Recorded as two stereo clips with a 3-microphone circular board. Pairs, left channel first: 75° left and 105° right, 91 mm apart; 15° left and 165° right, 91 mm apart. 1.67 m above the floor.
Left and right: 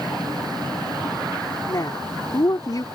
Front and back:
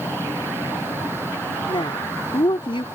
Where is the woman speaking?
30° left.